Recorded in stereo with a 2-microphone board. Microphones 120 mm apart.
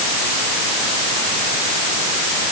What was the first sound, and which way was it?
Only background noise.